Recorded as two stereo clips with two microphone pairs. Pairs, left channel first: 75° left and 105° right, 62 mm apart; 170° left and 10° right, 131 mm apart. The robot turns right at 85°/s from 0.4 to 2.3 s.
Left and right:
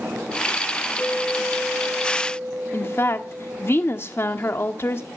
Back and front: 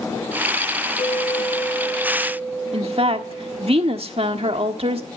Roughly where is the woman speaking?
Ahead left.